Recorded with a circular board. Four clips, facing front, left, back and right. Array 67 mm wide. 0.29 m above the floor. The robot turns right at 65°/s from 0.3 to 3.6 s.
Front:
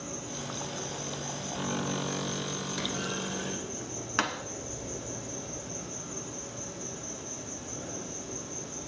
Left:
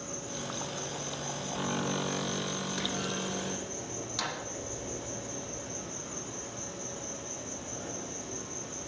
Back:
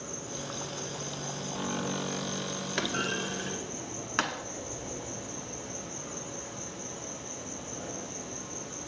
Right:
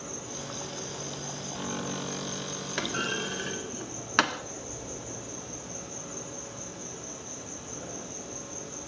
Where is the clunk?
145° right, 0.5 m; by 4.4 s 90° right, 0.5 m.